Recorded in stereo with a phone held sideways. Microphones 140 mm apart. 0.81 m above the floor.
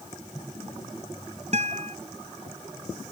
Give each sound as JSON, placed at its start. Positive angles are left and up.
{"t": 1.5, "sound": "a guitar", "side_deg": -55}